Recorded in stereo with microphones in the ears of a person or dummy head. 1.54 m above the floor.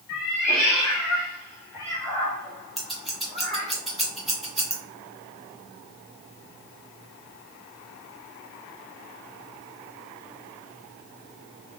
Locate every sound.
0.1 s a cat meowing: 50° left (ahead or behind), 1.6 m; by 3.7 s 40° right (ahead or behind), 1.2 m
2.8 s scissors: centre (ahead or behind), 0.9 m